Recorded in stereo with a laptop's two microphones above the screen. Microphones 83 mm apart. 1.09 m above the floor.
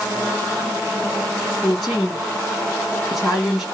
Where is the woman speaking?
5° right (ahead or behind), 1.9 m.